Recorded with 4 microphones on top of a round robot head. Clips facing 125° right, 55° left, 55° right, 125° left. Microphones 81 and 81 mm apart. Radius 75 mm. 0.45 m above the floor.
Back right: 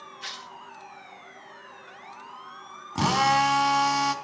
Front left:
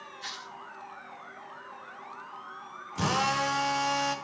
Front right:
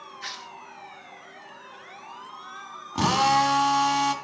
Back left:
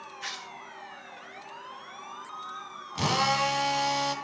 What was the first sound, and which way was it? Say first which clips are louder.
Tearing paper: back right 1 dB, front right 1 dB; 140° right.